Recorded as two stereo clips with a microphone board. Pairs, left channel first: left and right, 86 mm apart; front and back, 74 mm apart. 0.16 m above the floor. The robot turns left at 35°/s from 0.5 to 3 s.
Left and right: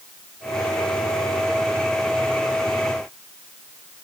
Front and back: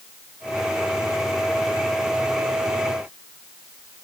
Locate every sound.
Only background noise.